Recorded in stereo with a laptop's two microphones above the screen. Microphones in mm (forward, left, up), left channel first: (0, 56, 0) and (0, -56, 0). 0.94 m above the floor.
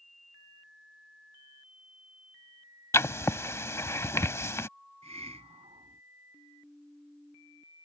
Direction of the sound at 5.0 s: 70° right (ahead or behind).